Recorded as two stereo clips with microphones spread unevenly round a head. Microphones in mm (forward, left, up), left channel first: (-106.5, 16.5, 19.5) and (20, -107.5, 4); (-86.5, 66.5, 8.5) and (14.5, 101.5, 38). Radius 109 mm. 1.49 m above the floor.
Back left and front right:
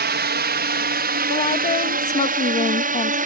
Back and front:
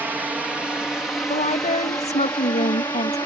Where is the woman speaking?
175° right.